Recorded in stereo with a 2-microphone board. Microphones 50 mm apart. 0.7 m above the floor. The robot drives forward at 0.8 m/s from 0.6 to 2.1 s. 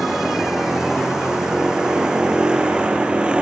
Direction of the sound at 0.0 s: 5° right (ahead or behind).